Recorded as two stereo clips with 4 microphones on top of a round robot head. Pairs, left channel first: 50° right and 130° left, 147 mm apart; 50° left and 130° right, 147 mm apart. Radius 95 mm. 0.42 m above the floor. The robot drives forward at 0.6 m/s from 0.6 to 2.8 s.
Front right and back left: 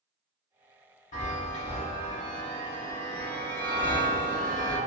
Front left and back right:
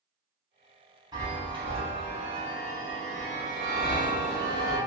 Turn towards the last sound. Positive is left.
turn(degrees=-120)